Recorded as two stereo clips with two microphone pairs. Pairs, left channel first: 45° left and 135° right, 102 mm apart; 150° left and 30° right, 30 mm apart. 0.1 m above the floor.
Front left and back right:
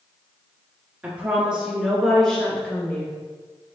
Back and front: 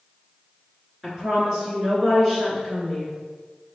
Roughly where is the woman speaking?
Right.